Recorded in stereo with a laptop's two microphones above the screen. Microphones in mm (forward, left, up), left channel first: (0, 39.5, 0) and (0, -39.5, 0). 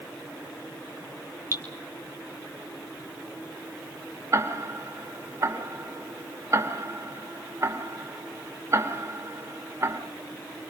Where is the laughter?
No laughter in this recording.